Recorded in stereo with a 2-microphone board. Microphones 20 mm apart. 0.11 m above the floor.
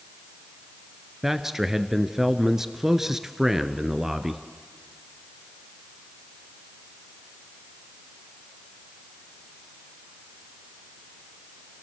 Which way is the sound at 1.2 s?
15° right (ahead or behind).